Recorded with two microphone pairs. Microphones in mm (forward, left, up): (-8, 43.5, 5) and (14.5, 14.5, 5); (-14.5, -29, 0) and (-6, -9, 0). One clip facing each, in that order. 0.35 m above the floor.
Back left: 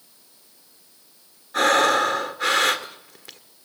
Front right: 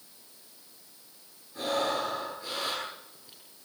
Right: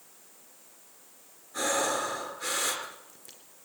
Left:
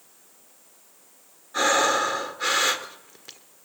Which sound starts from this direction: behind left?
Breathing, at 1.5 s.